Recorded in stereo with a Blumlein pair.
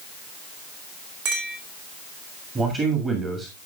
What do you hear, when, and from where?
1.2 s a clink: 45° right, 3 m
2.5 s a man speaking: 20° right, 2 m